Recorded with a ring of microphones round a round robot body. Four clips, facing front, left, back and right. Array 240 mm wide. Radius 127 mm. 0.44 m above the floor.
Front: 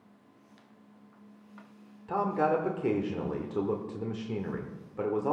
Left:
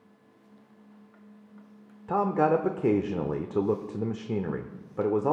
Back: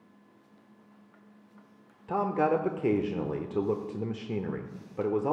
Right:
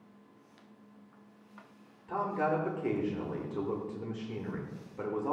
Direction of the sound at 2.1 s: 110° left.